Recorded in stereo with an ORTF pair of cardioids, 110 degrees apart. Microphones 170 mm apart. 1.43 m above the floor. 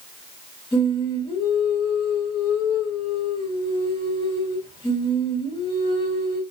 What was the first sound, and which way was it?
Singing, 30° left.